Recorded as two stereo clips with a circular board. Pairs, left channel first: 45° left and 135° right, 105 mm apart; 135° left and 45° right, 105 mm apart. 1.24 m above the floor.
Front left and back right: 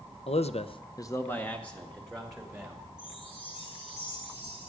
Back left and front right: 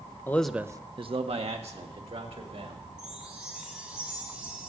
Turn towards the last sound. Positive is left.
turn(degrees=35)